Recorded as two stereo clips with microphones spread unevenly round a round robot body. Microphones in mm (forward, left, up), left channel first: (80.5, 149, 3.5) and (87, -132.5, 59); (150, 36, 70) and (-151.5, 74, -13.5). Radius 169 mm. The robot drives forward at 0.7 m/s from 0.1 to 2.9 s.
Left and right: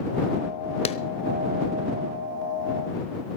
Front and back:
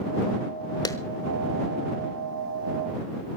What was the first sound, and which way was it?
A clap, 85° left.